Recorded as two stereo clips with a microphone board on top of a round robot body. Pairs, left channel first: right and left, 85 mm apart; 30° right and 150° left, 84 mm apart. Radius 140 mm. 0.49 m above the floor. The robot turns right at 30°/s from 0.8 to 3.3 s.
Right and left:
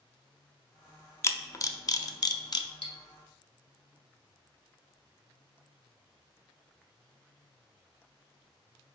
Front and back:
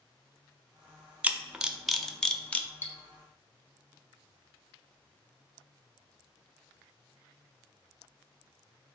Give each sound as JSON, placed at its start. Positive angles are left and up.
{"t": 1.2, "sound": "a camera shutter", "azimuth_deg": -140, "distance_m": 0.6}
{"t": 2.8, "sound": "cutlery clinking", "azimuth_deg": -100, "distance_m": 1.3}